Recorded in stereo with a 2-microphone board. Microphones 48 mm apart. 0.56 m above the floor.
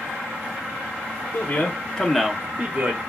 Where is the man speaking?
50° left (ahead or behind), 0.8 m; by 3.0 s 45° right (ahead or behind), 1.0 m.